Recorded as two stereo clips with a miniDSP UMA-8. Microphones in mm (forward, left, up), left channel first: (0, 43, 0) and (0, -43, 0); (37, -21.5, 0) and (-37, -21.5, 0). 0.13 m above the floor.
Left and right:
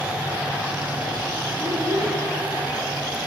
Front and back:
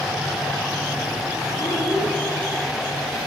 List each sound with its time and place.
1.6 s a child speaking: 45° right, 1.5 m